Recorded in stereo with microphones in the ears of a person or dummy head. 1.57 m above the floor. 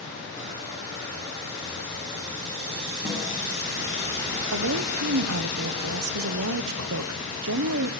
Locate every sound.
3.0 s a snare drum: 25° right (ahead or behind), 9 m
4.5 s a woman speaking: 65° right (ahead or behind), 1.1 m